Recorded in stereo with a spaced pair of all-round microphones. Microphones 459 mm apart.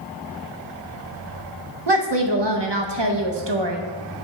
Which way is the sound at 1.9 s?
65° right (ahead or behind).